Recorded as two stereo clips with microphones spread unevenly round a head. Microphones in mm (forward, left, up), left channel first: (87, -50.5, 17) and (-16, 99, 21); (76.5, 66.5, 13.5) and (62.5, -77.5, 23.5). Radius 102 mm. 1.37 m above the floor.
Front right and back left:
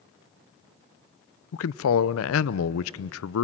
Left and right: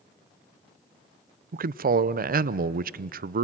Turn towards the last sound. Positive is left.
turn(degrees=-70)